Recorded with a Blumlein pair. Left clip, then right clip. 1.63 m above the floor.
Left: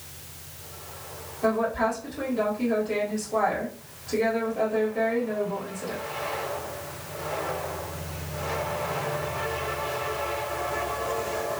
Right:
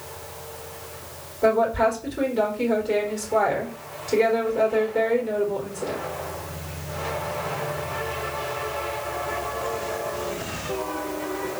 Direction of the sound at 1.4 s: 55° right.